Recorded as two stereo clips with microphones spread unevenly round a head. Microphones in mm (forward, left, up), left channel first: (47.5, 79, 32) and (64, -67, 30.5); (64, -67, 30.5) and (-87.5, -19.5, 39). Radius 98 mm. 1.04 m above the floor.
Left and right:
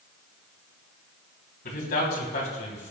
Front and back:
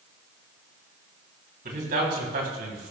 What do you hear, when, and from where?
1.6 s a man speaking: 120° left, 3 m; by 2.9 s 145° left, 2.5 m